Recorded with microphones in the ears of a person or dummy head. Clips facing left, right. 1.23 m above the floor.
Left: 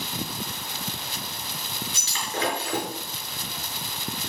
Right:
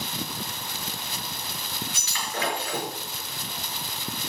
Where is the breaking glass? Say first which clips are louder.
Left 4 dB; 35° left (ahead or behind), 5.5 m.